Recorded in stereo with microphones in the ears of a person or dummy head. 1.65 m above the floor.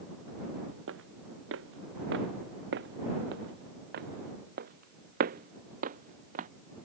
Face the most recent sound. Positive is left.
turn(degrees=-45)  # may be behind; listen again after turning